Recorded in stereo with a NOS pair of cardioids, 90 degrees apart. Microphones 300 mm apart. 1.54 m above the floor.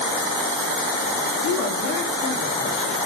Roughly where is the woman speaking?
Left.